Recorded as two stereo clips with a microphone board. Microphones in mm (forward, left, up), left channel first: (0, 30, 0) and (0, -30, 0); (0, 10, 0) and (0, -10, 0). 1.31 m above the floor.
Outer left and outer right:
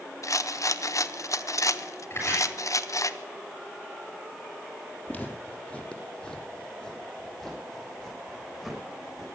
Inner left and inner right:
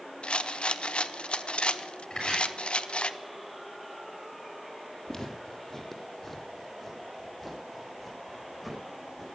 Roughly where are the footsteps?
Left.